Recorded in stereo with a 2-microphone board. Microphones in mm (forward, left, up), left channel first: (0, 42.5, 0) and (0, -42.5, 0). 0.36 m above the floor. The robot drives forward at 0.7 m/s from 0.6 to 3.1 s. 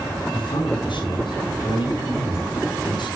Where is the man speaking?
70° left (ahead or behind), 4.5 m; by 3.2 s 60° left (ahead or behind), 5 m.